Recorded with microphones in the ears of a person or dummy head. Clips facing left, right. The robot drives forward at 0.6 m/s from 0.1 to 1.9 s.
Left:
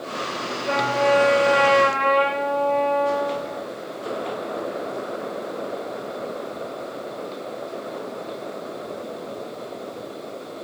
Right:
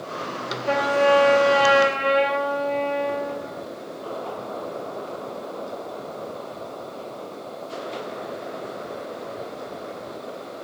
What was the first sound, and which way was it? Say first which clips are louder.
A trumpet: right 2 dB; 10° right (ahead or behind).